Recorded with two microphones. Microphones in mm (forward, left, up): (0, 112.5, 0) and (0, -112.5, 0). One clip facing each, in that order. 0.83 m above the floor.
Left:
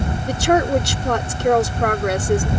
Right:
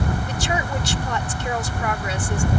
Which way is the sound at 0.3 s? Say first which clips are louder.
Left 9 dB; 65° left (ahead or behind).